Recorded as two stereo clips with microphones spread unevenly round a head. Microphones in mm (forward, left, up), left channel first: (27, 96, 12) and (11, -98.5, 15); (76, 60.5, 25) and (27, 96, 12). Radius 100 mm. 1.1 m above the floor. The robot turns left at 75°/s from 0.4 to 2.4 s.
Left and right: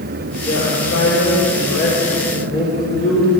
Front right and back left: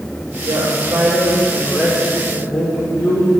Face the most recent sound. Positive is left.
turn(degrees=15)